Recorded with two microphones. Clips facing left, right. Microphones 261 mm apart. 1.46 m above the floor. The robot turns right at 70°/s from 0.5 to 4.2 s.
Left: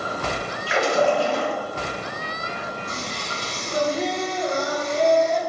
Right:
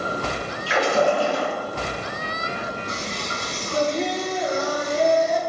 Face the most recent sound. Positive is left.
turn(degrees=-170)